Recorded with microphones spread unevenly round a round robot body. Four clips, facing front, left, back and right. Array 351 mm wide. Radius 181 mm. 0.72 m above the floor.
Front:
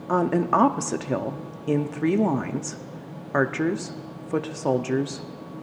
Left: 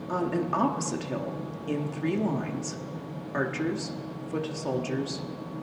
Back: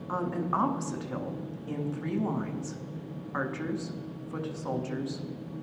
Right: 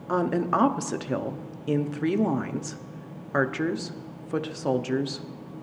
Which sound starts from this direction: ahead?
A woman speaking, at 0.1 s.